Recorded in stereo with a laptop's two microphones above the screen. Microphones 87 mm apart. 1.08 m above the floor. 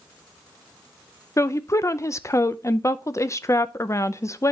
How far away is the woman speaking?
About 0.5 m.